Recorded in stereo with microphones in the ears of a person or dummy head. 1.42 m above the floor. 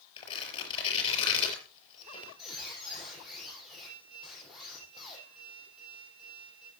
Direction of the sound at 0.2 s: 30° left (ahead or behind).